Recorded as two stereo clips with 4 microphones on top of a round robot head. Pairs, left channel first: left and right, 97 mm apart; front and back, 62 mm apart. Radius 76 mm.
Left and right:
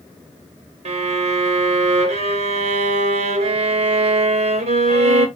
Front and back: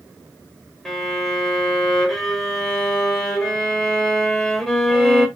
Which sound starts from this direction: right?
A violin, at 0.8 s.